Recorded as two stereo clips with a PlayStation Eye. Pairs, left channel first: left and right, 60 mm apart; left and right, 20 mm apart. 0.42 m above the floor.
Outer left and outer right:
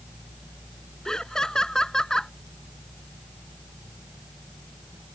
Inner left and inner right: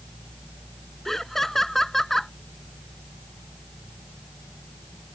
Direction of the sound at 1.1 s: 10° left (ahead or behind).